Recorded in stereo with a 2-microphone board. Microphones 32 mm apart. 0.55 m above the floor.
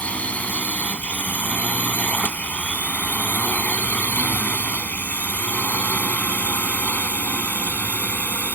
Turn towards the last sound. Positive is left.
turn(degrees=65)  # may be behind; listen again after turning